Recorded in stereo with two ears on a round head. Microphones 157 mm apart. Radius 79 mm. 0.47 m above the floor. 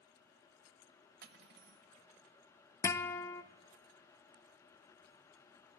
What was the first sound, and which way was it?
Cutlery clinking, 65° right (ahead or behind).